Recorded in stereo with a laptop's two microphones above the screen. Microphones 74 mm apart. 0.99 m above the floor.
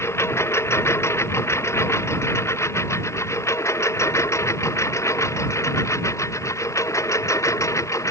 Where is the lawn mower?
35° left (ahead or behind); by 8.1 s 45° left (ahead or behind).